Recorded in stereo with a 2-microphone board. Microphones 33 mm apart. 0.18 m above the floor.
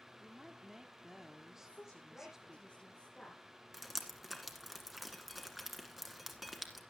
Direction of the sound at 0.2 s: 15° right (ahead or behind).